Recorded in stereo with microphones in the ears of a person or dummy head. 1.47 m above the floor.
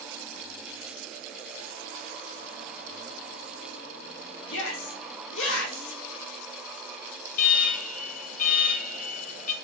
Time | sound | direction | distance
4.5 | a shout | 80° left | 3.5 m
7.3 | an alarm | 50° left (ahead or behind) | 1.7 m